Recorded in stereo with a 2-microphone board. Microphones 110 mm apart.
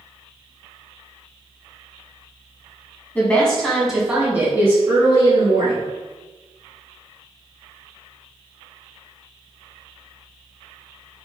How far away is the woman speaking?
About 1.4 m.